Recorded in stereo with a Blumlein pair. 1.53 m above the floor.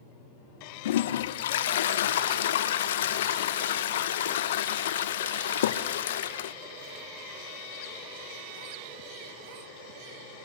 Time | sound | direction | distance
0.8 | a toilet flushing | 60° left | 0.6 m